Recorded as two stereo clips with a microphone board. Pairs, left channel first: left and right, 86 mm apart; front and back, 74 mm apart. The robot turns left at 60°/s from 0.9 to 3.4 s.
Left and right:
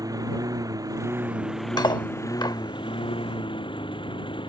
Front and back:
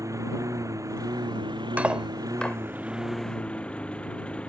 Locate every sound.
0.0 s a lawn mower: 135° right; by 4.5 s 75° left
1.8 s cutlery clinking: 115° left; by 2.6 s 65° left